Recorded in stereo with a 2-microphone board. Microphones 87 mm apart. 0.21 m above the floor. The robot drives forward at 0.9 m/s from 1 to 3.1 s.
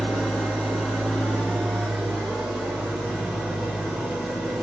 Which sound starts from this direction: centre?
An engine running, at 0.0 s.